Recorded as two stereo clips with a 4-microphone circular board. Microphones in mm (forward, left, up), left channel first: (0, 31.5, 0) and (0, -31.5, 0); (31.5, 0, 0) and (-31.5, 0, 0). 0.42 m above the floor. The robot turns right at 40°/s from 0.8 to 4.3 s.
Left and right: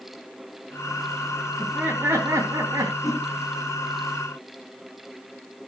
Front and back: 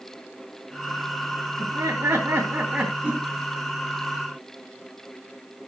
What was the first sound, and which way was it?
Laughter, 165° right.